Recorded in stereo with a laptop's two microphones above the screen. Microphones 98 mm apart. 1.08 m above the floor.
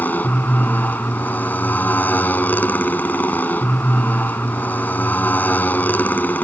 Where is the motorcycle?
20° left (ahead or behind).